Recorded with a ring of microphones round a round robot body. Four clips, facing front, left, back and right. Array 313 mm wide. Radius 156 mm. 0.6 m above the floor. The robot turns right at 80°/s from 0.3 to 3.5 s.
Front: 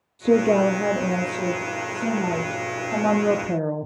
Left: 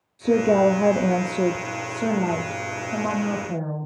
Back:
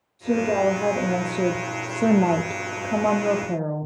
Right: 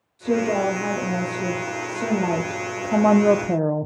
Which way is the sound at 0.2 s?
30° left.